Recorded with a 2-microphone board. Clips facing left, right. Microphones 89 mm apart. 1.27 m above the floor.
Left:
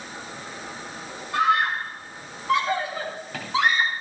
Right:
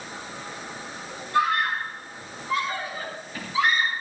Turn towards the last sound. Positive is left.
turn(degrees=80)